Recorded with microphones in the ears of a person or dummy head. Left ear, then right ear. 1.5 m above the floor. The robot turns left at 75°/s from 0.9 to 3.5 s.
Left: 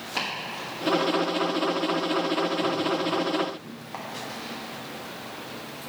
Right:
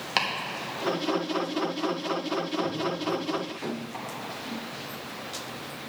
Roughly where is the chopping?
Right.